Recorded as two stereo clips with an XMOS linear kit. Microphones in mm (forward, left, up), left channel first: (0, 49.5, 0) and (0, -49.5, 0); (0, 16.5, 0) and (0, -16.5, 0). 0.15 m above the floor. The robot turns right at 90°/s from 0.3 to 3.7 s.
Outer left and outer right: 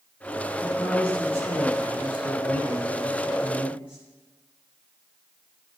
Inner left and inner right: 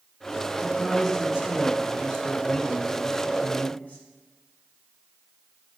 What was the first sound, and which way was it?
A man speaking, 145° left.